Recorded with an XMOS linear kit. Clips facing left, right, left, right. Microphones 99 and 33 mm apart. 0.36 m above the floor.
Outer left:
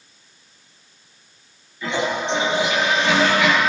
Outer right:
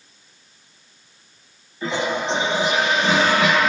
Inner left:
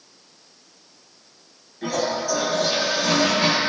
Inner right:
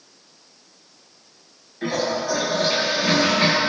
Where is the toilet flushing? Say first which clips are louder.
Even, inner right 1 dB; 40° right (ahead or behind), 6.5 m.